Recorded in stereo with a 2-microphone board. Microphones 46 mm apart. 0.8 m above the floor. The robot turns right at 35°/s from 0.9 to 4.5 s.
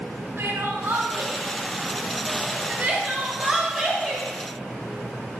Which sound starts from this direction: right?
Crying, at 0.4 s.